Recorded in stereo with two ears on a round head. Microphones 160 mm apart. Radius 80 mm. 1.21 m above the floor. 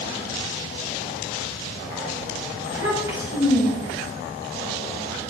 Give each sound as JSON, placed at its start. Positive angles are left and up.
{"t": 2.6, "sound": "a child speaking", "side_deg": -15, "distance_m": 6.5}